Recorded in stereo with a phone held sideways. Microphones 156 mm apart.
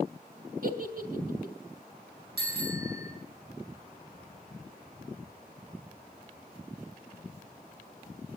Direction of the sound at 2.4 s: 80° right.